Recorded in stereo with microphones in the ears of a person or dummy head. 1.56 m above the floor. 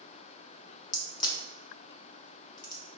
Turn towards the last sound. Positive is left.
turn(degrees=25)  # may be behind; listen again after turning